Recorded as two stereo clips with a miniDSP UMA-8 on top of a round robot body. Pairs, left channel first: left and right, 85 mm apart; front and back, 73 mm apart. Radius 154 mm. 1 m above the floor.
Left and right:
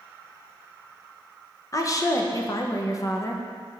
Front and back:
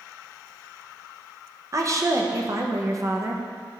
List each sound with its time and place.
1.7 s a woman speaking: 135° left, 1.2 m